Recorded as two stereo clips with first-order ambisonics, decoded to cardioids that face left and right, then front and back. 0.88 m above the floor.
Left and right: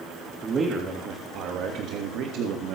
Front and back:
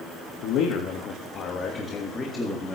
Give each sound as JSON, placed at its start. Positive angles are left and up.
{"t": 0.4, "sound": "a man speaking", "azimuth_deg": -25, "distance_m": 1.6}